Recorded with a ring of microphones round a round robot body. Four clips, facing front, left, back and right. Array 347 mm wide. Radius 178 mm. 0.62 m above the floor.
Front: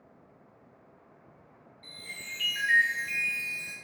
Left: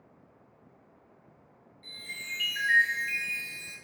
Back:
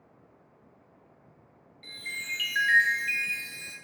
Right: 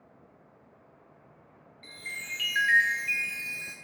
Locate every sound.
1.8 s a chime: 130° right, 0.8 m